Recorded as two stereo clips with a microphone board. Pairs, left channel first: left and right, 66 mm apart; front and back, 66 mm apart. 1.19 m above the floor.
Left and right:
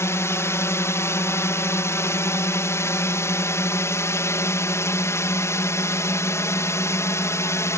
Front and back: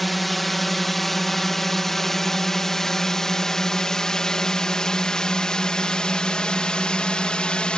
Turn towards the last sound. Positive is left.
turn(degrees=70)